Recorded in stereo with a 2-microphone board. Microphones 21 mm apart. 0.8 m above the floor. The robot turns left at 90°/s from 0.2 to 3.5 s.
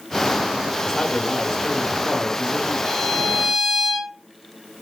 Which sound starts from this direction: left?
A violin, at 2.9 s.